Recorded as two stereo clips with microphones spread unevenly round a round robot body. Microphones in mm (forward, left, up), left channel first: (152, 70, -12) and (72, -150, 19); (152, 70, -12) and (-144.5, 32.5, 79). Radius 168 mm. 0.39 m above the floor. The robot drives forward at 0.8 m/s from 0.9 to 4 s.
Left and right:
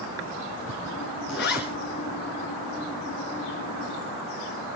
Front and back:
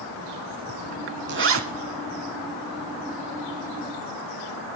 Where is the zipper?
130° left, 1.2 m; by 1.6 s 140° left, 1.4 m.